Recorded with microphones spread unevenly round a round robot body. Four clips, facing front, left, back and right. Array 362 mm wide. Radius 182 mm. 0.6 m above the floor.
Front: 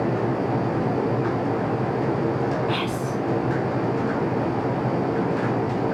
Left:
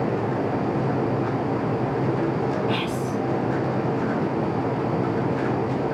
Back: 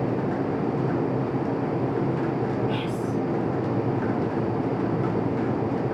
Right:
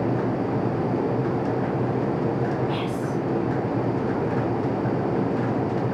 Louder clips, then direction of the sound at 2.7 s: Left 1 dB, front 2 dB; 55° left.